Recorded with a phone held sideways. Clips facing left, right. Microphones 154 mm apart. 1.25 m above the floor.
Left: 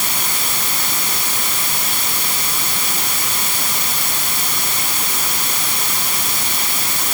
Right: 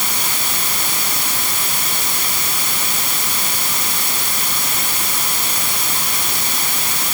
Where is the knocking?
I don't hear knocking.